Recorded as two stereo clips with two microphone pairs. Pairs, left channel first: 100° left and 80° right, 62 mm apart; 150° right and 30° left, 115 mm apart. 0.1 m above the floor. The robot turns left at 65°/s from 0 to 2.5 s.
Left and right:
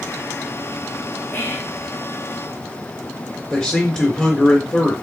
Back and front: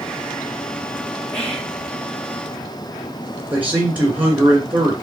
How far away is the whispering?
About 1.3 m.